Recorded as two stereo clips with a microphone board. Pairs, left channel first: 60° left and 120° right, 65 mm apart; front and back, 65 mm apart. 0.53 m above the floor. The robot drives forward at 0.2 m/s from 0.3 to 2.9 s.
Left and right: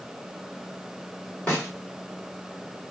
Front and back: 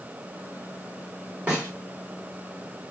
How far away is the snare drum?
About 2 m.